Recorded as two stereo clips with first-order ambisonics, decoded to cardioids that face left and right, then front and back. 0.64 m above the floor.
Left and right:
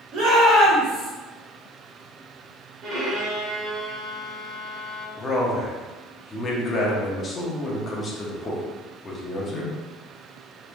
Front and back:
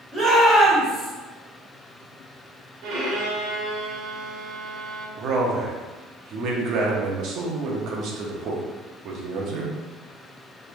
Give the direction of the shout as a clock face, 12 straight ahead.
3 o'clock.